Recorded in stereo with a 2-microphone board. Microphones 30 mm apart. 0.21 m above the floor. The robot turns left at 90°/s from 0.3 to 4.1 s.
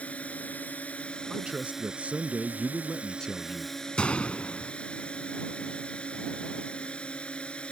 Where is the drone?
120° left; by 7.7 s 140° left.